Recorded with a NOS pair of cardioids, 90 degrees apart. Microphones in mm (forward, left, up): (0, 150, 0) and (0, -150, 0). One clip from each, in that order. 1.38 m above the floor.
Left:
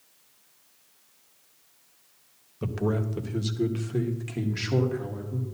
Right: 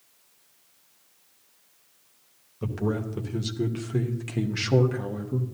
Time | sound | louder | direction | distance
2.6 | a man speaking | left 1 dB | 10° left | 1.5 m